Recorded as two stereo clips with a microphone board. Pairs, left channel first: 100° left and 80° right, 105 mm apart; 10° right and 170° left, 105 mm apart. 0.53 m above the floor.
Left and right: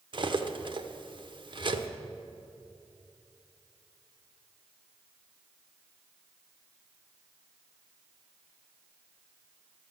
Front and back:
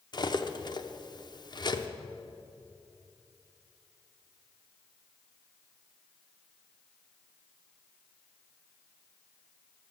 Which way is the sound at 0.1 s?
55° right.